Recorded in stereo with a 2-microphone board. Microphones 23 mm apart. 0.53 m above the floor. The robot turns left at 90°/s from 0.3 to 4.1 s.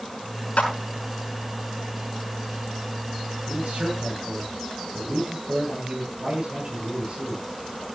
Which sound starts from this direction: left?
A clap, at 0.6 s.